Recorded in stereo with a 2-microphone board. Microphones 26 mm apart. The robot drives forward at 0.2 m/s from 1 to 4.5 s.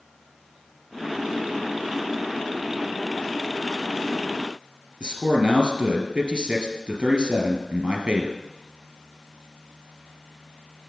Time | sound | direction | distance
5.0 | a man speaking | 40° right (ahead or behind) | 2 m